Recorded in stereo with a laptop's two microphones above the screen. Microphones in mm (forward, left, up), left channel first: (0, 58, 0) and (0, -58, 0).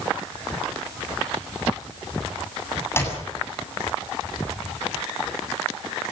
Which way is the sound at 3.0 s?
20° left (ahead or behind).